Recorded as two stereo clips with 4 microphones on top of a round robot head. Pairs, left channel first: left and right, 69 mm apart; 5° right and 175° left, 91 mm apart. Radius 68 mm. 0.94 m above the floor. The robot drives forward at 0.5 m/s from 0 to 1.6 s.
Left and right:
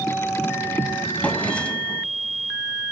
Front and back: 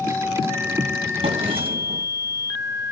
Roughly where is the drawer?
Behind.